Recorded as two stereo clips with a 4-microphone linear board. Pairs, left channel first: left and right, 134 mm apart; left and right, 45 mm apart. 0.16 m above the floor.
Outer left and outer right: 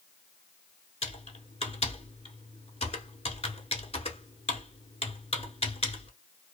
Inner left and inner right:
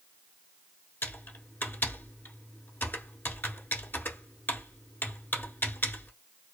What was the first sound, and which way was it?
Typing on a keyboard, 50° left (ahead or behind).